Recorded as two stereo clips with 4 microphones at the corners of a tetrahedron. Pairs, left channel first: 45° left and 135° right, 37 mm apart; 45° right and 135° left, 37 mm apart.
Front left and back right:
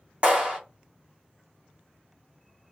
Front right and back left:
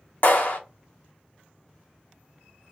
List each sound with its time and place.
0.2 s a clap: 75° right, 2.5 m